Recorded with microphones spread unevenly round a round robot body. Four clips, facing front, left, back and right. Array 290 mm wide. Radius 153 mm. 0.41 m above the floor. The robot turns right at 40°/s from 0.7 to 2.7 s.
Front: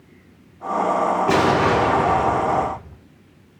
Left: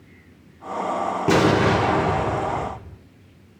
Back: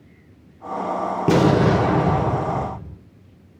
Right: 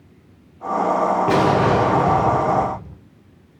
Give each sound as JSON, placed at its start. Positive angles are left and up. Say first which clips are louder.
{"t": 1.3, "sound": "an explosion", "louder": "left 2 dB, back 3 dB", "azimuth_deg": 165, "distance_m": 0.7}